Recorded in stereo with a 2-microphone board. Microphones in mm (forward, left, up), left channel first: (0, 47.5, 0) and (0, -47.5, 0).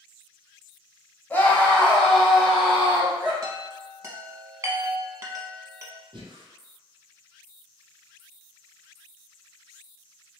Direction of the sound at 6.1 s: 60° right (ahead or behind).